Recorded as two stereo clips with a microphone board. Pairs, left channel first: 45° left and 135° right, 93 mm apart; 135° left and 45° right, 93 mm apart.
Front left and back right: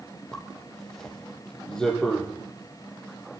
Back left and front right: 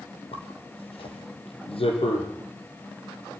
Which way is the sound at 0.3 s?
130° left.